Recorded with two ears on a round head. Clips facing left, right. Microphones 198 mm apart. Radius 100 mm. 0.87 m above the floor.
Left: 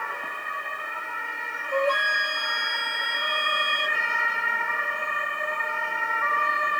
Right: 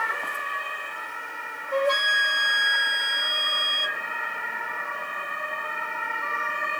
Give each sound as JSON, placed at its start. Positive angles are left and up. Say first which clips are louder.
{"t": 1.7, "sound": "a flute", "louder": "right 1 dB", "side_deg": -20, "distance_m": 1.2}